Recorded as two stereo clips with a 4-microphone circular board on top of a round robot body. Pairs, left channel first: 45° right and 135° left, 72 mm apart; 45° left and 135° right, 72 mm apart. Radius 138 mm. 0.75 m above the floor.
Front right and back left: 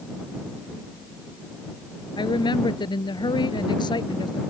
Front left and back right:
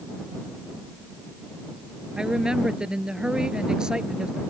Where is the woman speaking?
55° right.